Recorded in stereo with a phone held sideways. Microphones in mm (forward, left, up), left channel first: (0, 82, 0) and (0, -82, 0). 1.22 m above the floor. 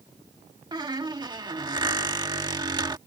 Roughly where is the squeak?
Right.